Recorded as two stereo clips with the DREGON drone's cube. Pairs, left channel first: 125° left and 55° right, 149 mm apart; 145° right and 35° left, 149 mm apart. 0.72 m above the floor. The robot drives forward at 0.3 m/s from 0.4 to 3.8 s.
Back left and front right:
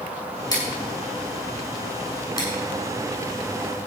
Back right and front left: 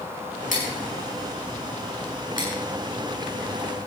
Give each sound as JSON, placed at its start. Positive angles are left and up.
{"t": 0.5, "sound": "scissors", "azimuth_deg": -175, "distance_m": 6.0}